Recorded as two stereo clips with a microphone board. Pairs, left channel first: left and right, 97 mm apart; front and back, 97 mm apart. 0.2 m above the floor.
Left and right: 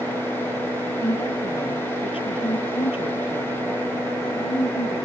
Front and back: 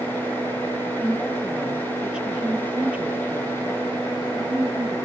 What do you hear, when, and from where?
1.0 s a woman speaking: 90° left; by 5.0 s 115° left